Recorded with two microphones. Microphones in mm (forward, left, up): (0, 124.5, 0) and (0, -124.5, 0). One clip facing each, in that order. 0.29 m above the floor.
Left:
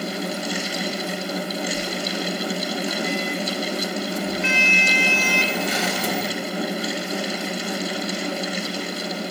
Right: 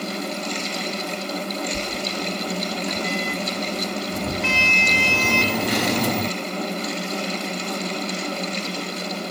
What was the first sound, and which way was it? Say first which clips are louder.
A sliding door: left 1 dB; 70° right (ahead or behind).